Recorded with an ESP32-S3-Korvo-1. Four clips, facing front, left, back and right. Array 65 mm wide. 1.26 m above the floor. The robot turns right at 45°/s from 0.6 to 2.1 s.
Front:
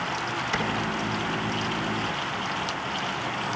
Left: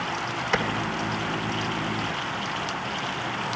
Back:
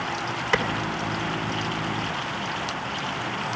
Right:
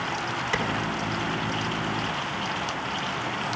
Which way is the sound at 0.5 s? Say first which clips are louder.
Left 3 dB, back 6 dB; 160° left.